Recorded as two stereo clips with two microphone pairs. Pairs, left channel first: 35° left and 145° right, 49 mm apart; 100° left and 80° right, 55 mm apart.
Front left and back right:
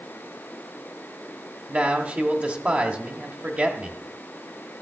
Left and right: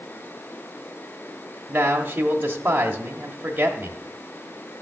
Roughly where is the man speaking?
Right.